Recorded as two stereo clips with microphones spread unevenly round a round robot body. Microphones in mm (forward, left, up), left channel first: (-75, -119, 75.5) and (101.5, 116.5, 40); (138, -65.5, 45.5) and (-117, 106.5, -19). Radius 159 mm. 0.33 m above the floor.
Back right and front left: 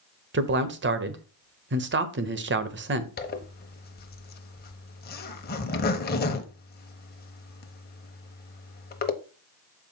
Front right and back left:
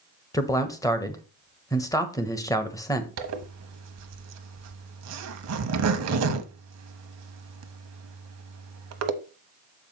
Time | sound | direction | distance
0.3 | a man speaking | 55° left | 1.2 m
3.2 | a zipper | 175° left | 1.1 m